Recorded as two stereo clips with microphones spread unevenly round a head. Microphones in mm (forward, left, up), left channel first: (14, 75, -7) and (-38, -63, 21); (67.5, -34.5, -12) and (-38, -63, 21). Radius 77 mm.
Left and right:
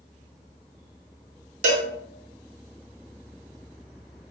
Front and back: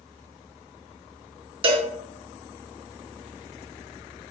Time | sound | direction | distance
1.6 | a cowbell | 140° right | 0.8 m